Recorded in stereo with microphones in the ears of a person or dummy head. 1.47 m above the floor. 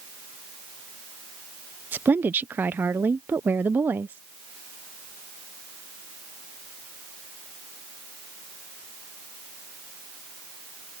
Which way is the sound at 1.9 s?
10° right (ahead or behind).